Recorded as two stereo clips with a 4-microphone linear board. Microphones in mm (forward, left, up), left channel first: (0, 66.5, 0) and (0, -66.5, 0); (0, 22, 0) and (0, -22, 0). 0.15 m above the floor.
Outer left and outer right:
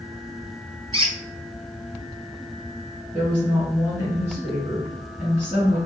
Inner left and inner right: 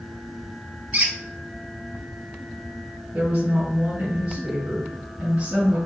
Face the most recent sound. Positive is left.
turn(degrees=-30)  # may be behind; listen again after turning